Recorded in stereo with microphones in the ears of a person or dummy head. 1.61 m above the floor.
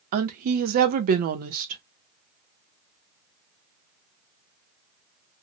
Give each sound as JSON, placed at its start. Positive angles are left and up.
{"t": 0.1, "sound": "a woman speaking", "side_deg": -50, "distance_m": 0.5}